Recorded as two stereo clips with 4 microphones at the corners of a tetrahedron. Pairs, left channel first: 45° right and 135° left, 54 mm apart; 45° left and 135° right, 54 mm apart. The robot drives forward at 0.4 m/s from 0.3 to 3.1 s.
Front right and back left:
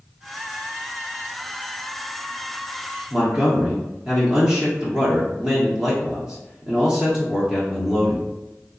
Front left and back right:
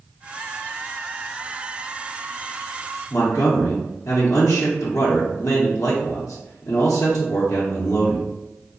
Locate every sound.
3.1 s a man speaking: 60° left, 0.8 m